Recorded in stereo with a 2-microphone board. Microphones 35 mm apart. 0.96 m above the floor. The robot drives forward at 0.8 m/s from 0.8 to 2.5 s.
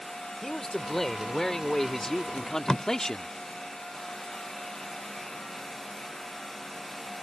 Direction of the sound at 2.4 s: 20° left (ahead or behind).